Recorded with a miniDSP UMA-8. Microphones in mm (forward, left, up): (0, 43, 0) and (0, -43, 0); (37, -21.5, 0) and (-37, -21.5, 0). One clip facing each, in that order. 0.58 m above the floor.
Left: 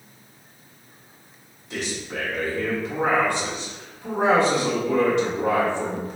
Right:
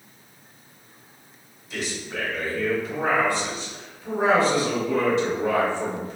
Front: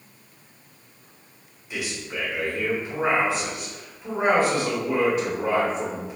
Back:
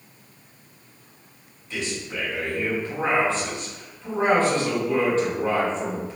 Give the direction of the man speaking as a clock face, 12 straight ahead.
9 o'clock.